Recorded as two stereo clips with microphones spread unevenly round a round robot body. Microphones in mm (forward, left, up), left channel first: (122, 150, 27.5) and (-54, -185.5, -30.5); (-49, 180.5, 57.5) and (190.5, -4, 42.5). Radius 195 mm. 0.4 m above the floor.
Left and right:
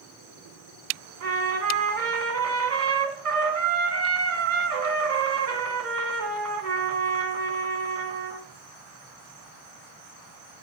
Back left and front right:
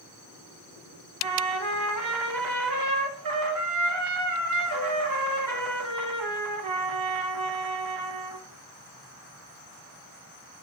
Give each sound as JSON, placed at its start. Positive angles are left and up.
{"t": 1.2, "sound": "a trumpet", "azimuth_deg": -65, "distance_m": 1.6}